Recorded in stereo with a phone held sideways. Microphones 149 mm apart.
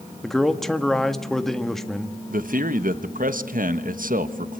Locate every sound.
0.2 s a man speaking: centre (ahead or behind), 1.5 m
2.3 s a man speaking: 70° right (ahead or behind), 1.4 m